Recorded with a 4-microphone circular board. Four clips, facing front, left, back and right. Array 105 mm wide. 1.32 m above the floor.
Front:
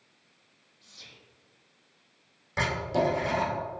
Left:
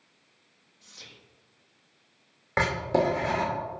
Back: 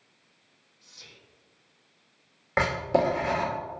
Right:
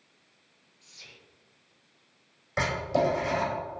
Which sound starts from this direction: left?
Whispering, at 0.8 s.